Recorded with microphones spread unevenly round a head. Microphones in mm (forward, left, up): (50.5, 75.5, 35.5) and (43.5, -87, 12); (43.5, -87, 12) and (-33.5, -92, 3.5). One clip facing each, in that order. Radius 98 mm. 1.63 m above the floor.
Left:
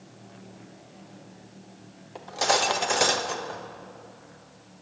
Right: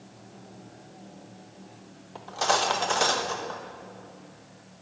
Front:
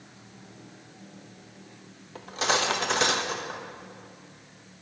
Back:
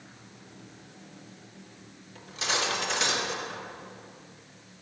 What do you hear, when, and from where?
2.1 s cutlery clinking: 25° left, 1.1 m